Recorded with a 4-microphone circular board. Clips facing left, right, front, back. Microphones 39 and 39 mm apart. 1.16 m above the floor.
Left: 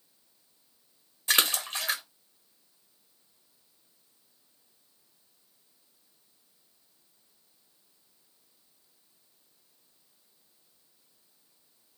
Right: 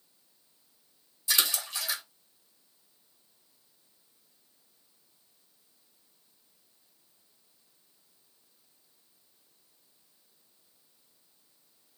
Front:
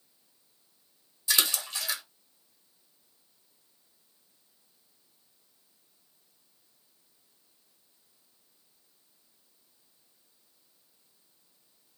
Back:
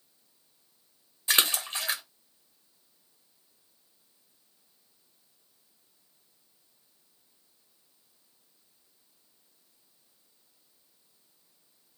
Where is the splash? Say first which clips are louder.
Left 3 dB, back 2 dB; 130° left, 0.7 m.